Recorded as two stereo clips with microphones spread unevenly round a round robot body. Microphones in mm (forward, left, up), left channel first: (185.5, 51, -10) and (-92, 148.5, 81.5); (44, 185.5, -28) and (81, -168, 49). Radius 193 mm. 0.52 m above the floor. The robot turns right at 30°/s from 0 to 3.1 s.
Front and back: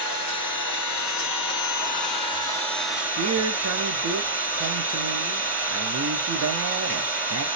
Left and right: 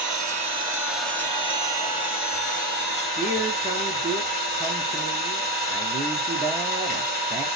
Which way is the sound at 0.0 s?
20° right.